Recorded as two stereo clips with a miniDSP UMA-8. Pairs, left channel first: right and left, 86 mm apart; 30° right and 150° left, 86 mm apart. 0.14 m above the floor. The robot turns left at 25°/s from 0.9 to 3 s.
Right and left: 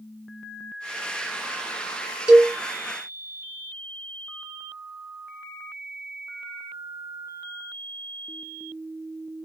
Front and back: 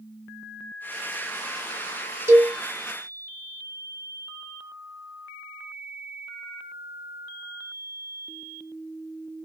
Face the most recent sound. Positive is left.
turn(degrees=135)